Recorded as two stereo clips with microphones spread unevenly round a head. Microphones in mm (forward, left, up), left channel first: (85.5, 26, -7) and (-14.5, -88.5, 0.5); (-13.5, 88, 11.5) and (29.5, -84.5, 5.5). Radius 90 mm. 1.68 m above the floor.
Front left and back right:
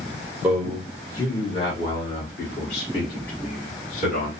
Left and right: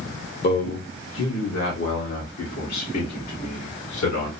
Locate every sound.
0.4 s a man speaking: 145° left, 0.5 m; by 4.3 s 100° left, 2.5 m